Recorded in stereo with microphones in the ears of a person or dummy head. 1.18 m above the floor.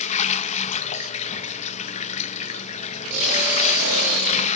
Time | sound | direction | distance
0.0 | running water | 35° left (ahead or behind) | 1.0 m